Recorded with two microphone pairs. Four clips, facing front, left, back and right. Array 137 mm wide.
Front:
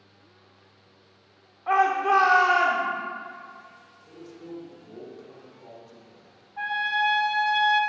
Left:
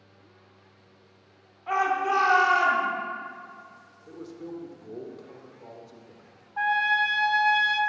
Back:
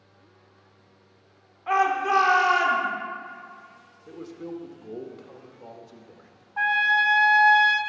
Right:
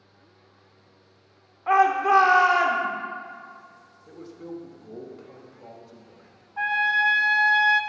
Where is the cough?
No cough in this recording.